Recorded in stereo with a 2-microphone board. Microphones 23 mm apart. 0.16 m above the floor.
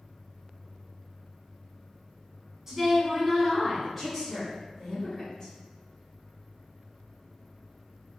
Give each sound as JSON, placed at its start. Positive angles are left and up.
{"t": 2.7, "sound": "a woman speaking", "side_deg": -20, "distance_m": 1.2}